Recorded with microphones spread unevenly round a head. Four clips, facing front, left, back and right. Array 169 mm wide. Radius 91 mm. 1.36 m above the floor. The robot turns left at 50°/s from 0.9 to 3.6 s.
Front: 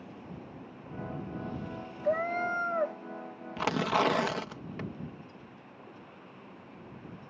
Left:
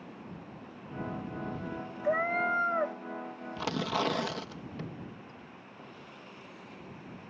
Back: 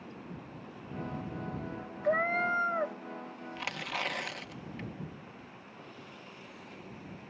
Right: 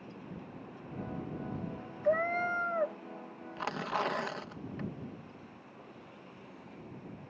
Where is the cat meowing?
125° left; by 3.0 s 80° left.